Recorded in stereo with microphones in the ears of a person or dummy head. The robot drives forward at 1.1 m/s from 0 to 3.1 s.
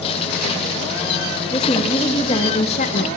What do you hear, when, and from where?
1.5 s a woman speaking: 20° left (ahead or behind), 2.5 m; by 3.1 s 40° left (ahead or behind), 1.2 m